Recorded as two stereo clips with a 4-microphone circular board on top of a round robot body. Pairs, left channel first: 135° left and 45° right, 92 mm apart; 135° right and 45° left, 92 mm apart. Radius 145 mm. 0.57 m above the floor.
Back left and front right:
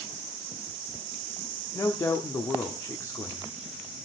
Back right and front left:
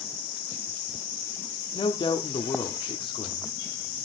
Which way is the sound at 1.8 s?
165° right.